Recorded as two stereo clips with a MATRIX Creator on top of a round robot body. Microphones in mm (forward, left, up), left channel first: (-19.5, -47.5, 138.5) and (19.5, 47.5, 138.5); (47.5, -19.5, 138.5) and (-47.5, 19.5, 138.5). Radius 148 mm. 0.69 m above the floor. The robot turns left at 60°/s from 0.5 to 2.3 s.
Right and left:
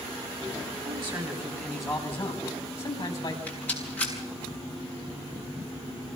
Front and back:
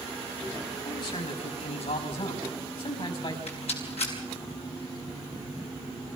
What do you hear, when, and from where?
0.8 s a man speaking: 35° left, 6.5 m; by 3.4 s 55° right, 6.5 m
3.5 s a rattle: 35° right, 7 m